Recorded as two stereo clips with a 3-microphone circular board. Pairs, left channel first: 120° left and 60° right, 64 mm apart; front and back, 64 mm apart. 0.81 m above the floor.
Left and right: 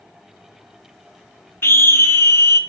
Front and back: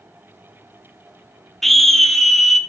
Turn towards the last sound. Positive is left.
turn(degrees=85)